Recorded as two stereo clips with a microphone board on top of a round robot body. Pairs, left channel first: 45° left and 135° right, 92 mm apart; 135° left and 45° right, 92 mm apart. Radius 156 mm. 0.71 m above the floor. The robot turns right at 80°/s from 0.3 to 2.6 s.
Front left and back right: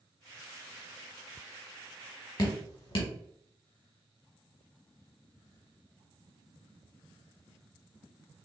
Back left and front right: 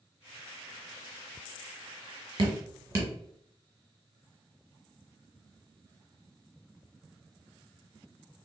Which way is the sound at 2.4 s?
5° right.